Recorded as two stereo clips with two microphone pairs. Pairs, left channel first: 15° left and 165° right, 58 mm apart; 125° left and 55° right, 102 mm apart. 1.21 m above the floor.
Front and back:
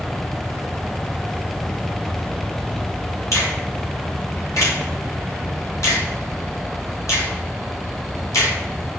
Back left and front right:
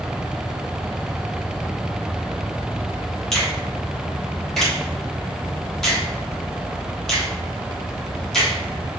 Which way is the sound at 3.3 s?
40° left.